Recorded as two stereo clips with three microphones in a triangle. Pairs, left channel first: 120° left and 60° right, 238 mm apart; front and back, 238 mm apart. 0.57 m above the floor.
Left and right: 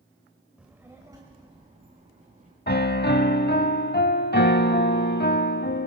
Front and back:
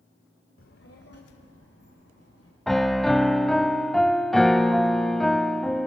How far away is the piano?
About 0.6 m.